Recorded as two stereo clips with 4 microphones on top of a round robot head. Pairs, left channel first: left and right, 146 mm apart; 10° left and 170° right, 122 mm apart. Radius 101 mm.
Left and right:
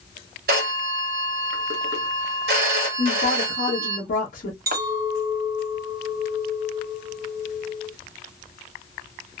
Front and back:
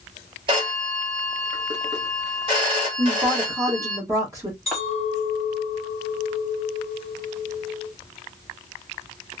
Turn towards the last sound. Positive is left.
turn(degrees=-75)